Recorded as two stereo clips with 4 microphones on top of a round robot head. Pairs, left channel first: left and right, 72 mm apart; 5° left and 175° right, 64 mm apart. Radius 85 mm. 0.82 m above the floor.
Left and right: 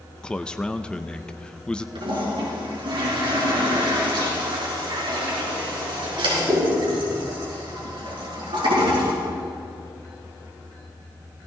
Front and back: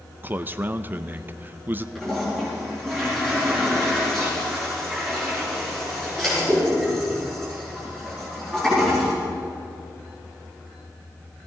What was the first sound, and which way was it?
A man speaking, 160° left.